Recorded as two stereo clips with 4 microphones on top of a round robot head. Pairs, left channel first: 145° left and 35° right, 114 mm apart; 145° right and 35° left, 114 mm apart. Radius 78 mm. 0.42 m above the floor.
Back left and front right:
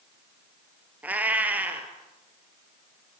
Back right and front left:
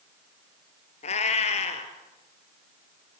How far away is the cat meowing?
About 2 m.